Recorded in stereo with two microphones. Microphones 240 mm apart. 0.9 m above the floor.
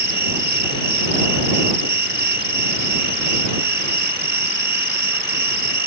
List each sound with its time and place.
0.0 s an insect: 45° right (ahead or behind)